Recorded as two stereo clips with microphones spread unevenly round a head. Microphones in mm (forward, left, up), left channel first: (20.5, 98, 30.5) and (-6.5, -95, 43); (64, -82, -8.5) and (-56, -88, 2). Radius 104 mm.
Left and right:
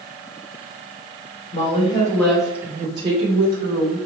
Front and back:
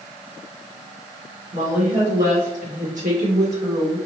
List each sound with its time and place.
1.5 s a woman speaking: 135° left, 1.1 m; by 4.0 s 145° right, 1.7 m